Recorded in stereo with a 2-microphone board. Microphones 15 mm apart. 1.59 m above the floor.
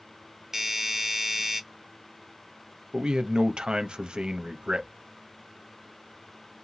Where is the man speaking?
80° right, 0.6 m.